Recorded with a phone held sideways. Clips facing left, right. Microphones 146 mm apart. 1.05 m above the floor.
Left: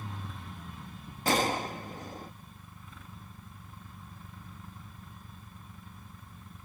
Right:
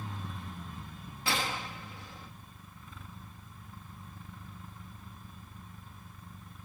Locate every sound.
1.2 s a gunshot: 45° left (ahead or behind)